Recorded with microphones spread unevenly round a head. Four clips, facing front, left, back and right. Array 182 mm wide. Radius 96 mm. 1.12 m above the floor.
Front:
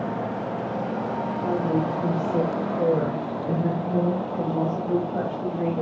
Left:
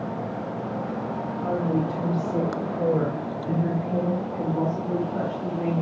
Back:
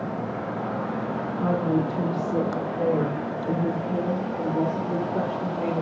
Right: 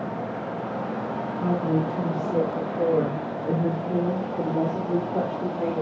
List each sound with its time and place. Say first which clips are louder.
1.4 s a woman speaking: right 1 dB, back 1 dB; 150° right, 2 m; by 5.8 s 90° right, 5.5 m